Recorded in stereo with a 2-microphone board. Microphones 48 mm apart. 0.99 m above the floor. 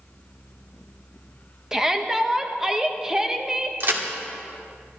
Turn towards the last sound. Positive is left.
turn(degrees=-50)  # may be behind; listen again after turning